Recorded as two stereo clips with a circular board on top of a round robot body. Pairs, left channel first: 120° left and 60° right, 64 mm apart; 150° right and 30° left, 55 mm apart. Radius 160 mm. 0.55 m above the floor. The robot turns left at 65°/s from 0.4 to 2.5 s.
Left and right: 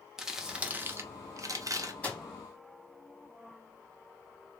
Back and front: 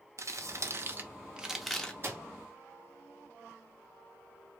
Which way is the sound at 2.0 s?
55° left.